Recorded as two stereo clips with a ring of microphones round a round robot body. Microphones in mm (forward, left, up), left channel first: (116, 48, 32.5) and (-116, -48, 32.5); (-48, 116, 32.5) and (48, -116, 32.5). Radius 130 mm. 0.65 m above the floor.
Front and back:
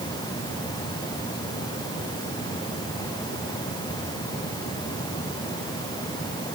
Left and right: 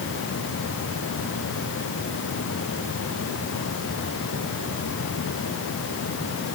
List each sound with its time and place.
Only background noise.